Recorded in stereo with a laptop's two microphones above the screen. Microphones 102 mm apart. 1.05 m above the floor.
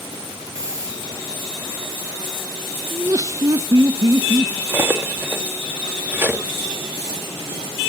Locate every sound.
0.6 s a hiss: 30° right (ahead or behind), 4 m
2.9 s laughter: 35° right (ahead or behind), 0.6 m
4.7 s cutlery clinking: 20° right (ahead or behind), 0.8 m